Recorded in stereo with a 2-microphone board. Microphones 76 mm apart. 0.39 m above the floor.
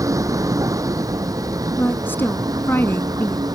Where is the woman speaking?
25° left (ahead or behind).